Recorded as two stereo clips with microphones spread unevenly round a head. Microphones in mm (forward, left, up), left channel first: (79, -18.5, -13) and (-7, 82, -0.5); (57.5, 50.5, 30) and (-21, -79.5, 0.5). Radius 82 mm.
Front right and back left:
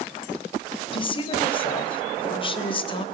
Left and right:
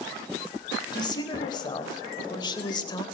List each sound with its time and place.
0.9 s a woman speaking: straight ahead, 4.5 m; by 3.0 s 5° right, 3 m